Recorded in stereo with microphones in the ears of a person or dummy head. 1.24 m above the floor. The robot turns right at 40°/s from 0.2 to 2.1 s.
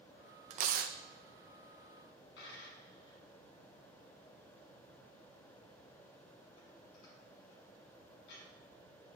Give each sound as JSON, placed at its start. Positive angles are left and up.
{"t": 0.5, "sound": "tearing paper", "side_deg": -35, "distance_m": 0.5}
{"t": 2.4, "sound": "a dropped coin", "side_deg": 60, "distance_m": 2.0}